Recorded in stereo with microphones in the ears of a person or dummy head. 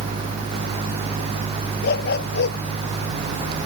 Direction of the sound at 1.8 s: 55° left (ahead or behind).